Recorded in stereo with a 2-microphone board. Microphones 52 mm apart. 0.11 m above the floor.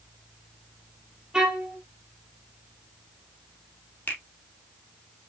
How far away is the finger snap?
About 2.5 m.